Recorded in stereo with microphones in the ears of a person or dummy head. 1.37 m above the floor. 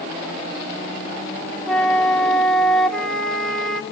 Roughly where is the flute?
Centre.